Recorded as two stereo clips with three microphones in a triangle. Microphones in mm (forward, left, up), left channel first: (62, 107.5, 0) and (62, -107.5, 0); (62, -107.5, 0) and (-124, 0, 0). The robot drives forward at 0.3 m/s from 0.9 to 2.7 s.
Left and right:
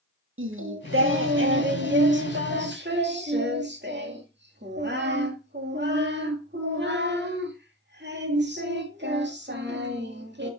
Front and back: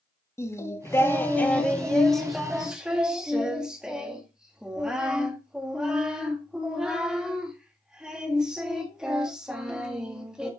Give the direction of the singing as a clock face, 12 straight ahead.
4 o'clock.